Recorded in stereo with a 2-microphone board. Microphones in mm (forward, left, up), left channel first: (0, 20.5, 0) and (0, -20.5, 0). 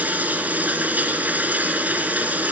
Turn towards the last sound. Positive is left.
turn(degrees=-45)  # may be behind; listen again after turning